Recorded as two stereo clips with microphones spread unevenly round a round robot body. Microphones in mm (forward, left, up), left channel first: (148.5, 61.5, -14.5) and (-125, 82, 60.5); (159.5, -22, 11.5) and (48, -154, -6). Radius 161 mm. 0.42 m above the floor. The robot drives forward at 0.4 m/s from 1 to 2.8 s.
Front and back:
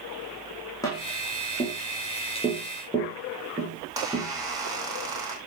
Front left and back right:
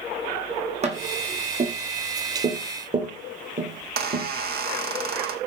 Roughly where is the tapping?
Right.